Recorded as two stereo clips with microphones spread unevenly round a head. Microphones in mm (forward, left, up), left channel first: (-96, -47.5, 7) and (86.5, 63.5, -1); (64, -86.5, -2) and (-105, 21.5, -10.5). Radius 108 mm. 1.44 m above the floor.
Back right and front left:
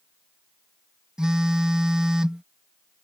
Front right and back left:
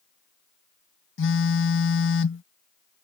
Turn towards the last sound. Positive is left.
turn(degrees=-55)